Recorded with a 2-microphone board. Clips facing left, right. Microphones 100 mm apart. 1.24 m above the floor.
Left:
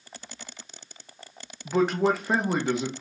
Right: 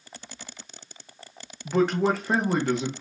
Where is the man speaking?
5° left (ahead or behind), 0.6 m.